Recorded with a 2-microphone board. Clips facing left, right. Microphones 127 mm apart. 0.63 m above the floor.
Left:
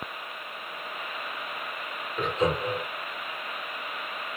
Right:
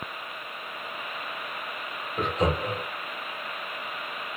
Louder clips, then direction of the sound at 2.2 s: Even; 40° right (ahead or behind).